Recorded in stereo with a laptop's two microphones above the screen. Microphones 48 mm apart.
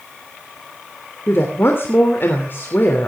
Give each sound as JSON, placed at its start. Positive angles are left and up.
{"t": 1.3, "sound": "a woman speaking", "side_deg": 50, "distance_m": 3.0}